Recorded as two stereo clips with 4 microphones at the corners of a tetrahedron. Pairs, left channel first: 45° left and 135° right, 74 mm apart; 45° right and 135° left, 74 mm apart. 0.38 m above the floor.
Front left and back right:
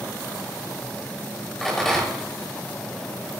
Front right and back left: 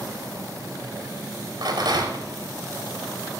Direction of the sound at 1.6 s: 130° left.